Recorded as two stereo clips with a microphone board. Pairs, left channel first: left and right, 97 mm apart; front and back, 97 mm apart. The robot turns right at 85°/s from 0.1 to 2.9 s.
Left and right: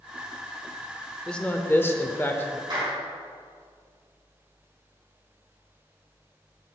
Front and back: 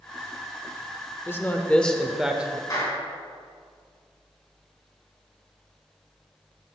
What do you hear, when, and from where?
1.3 s a man speaking: 20° left, 0.8 m; by 2.6 s 135° left, 0.8 m
2.7 s a clap: 50° right, 4 m; by 3.0 s 35° right, 4 m